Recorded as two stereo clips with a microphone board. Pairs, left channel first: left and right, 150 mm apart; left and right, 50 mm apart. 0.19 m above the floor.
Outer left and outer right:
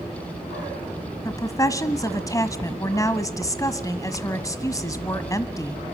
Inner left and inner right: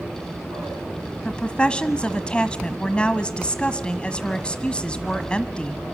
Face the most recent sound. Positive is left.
turn(degrees=20)  # may be behind; listen again after turning